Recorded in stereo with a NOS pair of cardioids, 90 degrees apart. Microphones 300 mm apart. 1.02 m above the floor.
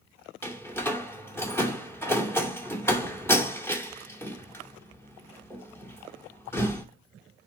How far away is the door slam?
About 2.5 m.